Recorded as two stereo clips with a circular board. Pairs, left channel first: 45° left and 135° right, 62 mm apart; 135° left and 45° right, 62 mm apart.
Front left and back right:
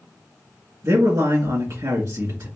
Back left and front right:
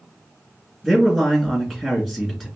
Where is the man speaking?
135° right, 3 m.